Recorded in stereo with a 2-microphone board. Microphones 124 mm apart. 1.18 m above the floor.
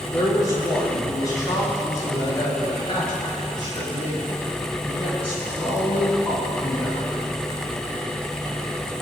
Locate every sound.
0.1 s a man speaking: 25° left (ahead or behind), 3.5 m; by 7.1 s 40° left (ahead or behind), 11 m